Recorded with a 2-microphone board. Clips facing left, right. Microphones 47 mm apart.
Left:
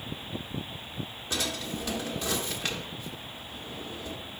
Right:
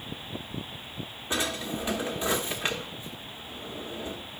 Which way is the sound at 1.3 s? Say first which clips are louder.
Right 3 dB; 20° right (ahead or behind).